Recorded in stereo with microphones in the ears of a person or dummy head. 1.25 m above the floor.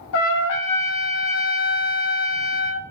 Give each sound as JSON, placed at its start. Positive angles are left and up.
{"t": 0.1, "sound": "a trumpet", "side_deg": 65, "distance_m": 0.6}